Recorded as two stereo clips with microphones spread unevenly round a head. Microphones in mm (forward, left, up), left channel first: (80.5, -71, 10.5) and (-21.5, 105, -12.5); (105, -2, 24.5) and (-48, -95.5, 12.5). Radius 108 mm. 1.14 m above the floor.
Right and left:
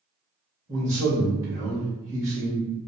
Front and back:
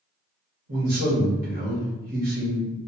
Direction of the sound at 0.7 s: 170° right.